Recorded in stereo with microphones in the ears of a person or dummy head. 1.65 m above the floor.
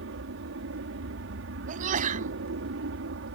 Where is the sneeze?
45° right (ahead or behind).